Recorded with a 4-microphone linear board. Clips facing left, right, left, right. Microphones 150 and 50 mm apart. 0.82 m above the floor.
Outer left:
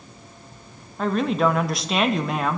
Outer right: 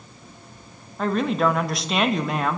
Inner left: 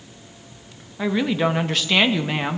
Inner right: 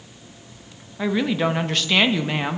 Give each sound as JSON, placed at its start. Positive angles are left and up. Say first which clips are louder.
{"t": 1.0, "sound": "a woman speaking", "louder": "outer left 1 dB, inner left 1 dB", "side_deg": 0, "distance_m": 0.8}